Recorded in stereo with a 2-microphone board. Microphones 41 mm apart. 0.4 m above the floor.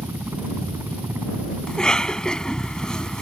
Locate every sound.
0.0 s a helicopter: 65° right (ahead or behind)
1.7 s a cough: 20° left (ahead or behind)